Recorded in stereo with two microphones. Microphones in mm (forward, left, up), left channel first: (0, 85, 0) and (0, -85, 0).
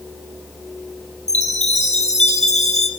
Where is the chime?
40° left (ahead or behind), 2.5 m.